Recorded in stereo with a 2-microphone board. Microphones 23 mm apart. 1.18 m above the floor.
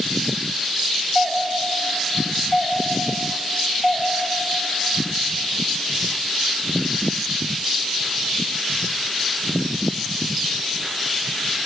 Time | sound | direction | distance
1.1 | a doorbell | 15° left (ahead or behind) | 2.5 m